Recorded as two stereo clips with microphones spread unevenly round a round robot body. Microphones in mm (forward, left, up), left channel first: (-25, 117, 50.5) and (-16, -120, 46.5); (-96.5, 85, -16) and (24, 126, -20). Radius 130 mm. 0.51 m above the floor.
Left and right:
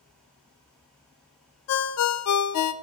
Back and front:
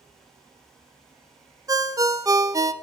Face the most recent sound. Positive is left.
turn(degrees=85)